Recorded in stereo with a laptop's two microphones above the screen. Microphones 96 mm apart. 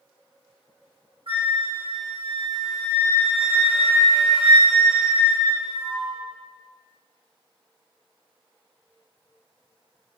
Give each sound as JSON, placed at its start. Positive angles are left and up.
{"t": 1.3, "sound": "a flute", "side_deg": -60, "distance_m": 1.6}